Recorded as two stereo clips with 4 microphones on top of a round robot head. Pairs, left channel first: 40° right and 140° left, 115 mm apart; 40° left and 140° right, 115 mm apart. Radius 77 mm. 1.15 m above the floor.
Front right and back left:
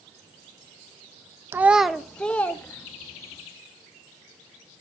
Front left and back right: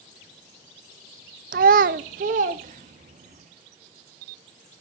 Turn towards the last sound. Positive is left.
turn(degrees=-110)